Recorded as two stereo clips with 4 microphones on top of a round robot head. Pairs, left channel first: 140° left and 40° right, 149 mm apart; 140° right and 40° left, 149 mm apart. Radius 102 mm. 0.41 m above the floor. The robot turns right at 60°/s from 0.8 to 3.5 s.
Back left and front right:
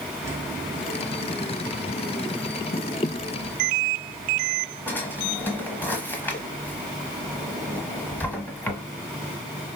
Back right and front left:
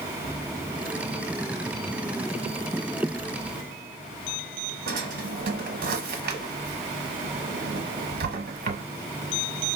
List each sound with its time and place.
4.9 s a drawer: 65° left, 1.0 m